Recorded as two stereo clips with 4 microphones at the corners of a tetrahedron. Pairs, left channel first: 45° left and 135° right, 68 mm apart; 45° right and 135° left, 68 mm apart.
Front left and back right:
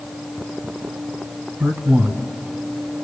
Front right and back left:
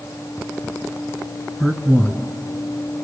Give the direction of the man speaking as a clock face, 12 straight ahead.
4 o'clock.